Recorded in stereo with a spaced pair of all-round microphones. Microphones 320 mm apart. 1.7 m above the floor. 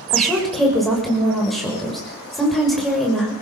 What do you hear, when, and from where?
0.1 s a woman speaking: centre (ahead or behind), 6.5 m